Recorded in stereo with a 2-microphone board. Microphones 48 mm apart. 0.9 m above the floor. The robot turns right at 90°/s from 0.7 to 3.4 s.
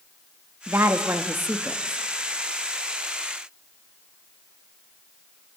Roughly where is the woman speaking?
Behind right.